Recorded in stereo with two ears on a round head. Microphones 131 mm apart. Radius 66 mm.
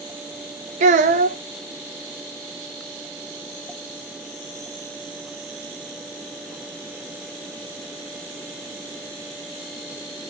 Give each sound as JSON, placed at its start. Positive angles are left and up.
{"t": 0.8, "sound": "a child speaking", "side_deg": -50, "distance_m": 0.7}